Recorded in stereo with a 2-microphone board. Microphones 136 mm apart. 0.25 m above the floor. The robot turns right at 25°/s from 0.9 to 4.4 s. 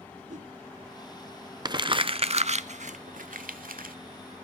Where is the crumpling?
30° right (ahead or behind), 0.6 m; by 4.0 s 85° right, 0.6 m.